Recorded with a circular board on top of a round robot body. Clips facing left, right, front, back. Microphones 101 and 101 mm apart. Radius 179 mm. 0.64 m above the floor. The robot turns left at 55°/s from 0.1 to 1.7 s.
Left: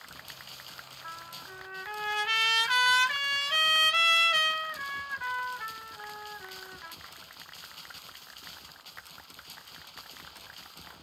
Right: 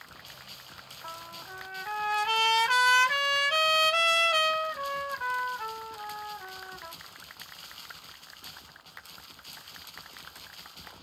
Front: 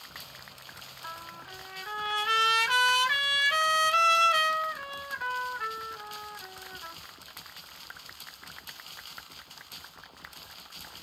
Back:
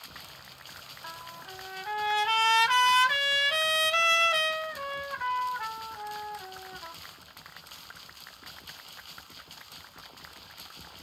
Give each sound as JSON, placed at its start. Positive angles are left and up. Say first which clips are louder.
{"t": 1.0, "sound": "a trumpet", "louder": "right 2 dB, even", "azimuth_deg": -90, "distance_m": 2.5}